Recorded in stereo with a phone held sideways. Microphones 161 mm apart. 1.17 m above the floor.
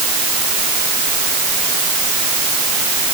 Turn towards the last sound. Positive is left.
No sound to turn to.